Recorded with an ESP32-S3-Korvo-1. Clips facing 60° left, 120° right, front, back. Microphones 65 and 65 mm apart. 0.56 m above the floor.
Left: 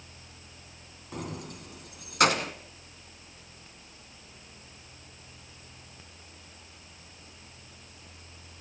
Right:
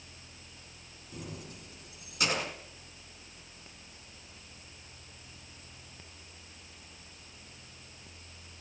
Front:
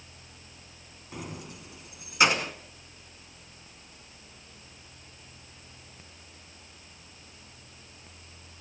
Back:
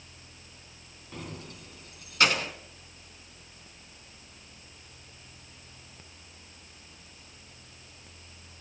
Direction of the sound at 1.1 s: 80° left.